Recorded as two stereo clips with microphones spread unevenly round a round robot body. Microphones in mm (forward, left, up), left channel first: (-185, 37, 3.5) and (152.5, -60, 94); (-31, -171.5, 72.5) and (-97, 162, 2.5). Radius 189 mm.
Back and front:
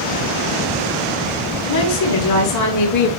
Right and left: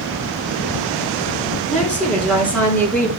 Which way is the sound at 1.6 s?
165° right.